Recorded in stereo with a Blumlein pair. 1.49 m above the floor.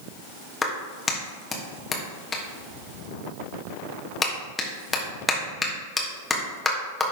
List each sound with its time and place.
0.6 s a clap: 15° left, 1.5 m